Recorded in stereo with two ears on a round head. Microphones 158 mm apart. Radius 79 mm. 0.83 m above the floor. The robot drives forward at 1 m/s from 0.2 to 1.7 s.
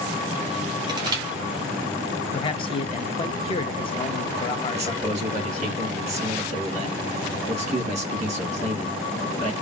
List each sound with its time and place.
0.9 s crushing: 25° right (ahead or behind), 1.5 m; by 1.2 s 20° right (ahead or behind), 1.7 m
2.3 s a man speaking: 30° left (ahead or behind), 0.7 m
4.7 s a man speaking: 40° right (ahead or behind), 1.7 m